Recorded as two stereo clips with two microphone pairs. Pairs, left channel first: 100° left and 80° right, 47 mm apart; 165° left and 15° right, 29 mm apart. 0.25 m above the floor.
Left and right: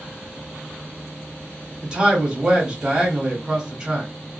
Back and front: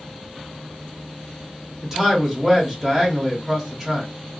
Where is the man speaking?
45° right, 1.0 m.